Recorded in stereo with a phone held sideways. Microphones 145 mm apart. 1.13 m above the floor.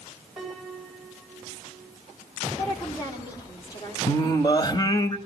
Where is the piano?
Centre (ahead or behind), 6.5 m.